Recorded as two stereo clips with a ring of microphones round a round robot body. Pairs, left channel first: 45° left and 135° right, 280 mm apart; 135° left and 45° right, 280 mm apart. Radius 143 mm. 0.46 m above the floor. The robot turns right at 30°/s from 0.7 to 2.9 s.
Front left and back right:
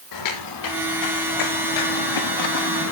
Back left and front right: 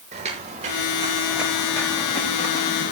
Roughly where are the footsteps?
Ahead left.